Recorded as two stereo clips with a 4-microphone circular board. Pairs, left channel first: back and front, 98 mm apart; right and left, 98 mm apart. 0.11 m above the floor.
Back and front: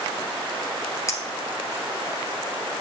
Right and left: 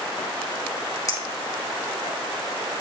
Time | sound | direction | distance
1.1 | a clink | 130° right | 1.6 m